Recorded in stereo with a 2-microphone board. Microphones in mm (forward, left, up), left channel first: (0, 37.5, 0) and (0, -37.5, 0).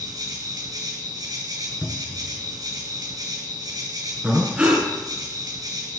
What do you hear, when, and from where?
0.0 s an insect: 60° right (ahead or behind), 2.5 m
1.8 s a cupboard door: centre (ahead or behind), 1.1 m
4.2 s breathing: 15° right (ahead or behind), 2 m